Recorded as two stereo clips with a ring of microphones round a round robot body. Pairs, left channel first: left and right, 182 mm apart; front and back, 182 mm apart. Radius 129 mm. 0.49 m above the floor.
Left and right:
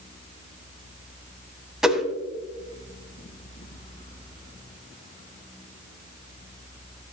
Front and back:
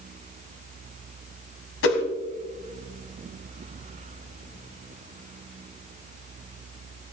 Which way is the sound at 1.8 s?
5° right.